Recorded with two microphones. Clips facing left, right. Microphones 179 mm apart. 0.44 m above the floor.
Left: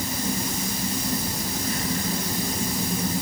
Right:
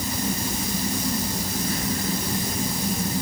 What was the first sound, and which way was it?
Only background noise.